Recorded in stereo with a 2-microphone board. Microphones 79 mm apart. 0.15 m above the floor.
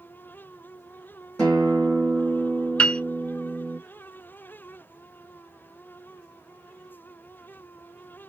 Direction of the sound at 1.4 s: 10° left (ahead or behind).